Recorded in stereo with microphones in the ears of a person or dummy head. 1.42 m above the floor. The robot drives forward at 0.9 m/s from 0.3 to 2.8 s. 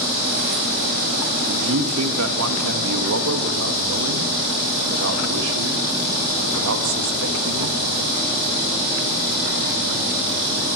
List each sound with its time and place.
1.5 s a man speaking: 80° right, 2 m; by 7.8 s 70° right (ahead or behind), 2 m